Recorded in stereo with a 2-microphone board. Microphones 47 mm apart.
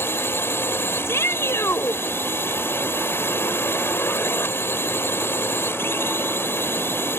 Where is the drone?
60° left (ahead or behind).